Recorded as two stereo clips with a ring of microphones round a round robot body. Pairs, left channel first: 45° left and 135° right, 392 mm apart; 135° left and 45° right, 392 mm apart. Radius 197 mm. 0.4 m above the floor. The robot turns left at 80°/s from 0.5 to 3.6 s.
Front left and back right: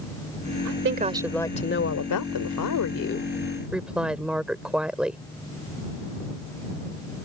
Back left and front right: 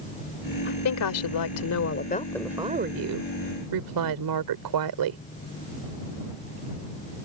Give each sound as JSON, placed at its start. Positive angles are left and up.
{"t": 0.7, "sound": "a woman speaking", "azimuth_deg": -170}